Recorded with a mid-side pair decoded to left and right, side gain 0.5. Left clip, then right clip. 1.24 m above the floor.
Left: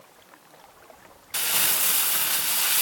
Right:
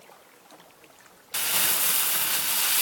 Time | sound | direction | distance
1.3 | crumpling | 5° left | 0.5 m